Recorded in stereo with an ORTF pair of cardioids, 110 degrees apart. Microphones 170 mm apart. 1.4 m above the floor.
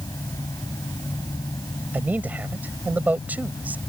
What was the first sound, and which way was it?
A fan, 20° left.